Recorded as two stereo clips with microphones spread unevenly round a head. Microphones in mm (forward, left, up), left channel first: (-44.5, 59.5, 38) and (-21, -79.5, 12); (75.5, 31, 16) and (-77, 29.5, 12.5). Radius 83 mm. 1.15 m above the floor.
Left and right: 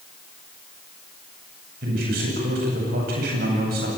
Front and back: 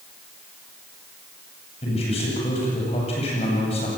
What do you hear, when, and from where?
1.8 s a man speaking: 55° right, 9 m